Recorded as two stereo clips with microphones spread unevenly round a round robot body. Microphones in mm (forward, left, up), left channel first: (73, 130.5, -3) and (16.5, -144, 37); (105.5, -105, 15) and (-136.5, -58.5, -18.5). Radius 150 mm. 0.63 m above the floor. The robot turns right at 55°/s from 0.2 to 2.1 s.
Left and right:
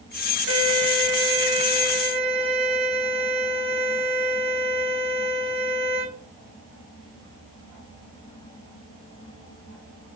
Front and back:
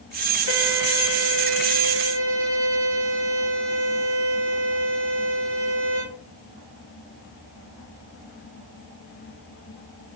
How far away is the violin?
About 2.5 m.